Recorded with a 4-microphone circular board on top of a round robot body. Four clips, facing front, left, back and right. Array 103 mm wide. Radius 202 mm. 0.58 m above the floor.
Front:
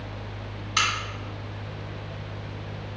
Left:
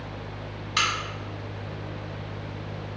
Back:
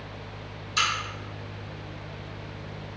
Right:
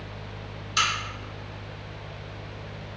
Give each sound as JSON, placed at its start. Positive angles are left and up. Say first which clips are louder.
{"t": 0.8, "sound": "a crack", "louder": "even, front 1 dB", "azimuth_deg": 40, "distance_m": 1.6}